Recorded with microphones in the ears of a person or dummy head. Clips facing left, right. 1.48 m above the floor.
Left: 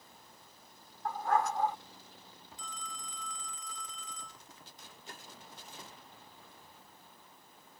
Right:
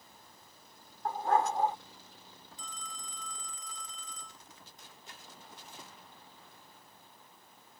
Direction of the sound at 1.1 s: 25° right (ahead or behind).